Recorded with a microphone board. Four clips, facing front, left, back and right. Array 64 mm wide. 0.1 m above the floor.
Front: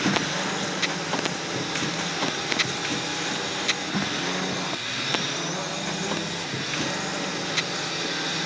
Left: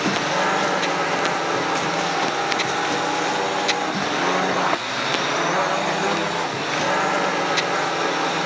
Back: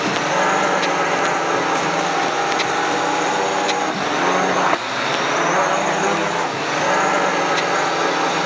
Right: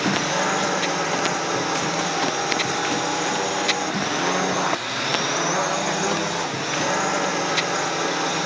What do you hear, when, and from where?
0.0 s a drone: 170° left